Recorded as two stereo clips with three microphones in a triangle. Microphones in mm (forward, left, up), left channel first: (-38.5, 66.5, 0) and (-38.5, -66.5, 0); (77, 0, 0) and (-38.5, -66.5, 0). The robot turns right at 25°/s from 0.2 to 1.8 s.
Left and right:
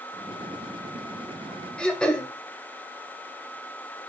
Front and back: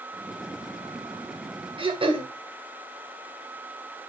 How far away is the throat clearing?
About 1.3 m.